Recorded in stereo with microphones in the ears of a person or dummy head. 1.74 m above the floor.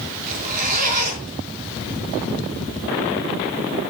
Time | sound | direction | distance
0.3 | a zipper | 45° right (ahead or behind) | 4 m